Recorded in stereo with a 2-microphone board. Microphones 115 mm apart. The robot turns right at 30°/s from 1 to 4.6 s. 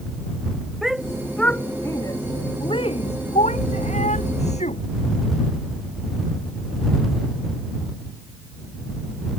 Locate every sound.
0.8 s a shout: centre (ahead or behind); by 4.8 s 75° left (ahead or behind)